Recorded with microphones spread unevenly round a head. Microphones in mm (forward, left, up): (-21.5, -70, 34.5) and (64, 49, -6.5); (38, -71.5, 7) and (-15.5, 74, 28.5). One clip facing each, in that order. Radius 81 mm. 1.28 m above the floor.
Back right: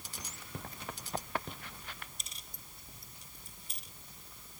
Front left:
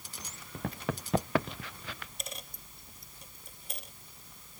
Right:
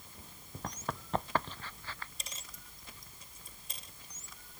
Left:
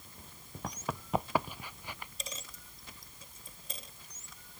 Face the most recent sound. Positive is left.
turn(degrees=100)